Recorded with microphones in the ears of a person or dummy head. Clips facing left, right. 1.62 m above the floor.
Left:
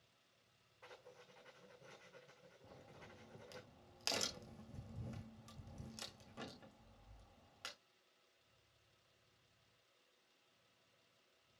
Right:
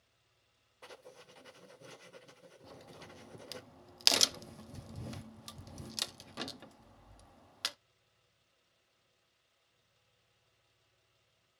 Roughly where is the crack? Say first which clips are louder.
Right 7 dB; right.